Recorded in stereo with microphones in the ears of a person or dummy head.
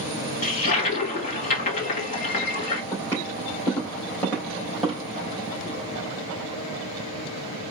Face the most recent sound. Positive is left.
turn(degrees=5)  # may be behind; listen again after turning